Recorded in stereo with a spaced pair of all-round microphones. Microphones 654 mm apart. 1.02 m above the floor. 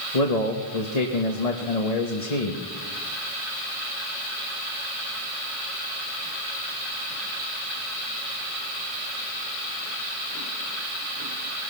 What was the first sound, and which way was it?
A man speaking, 65° left (ahead or behind).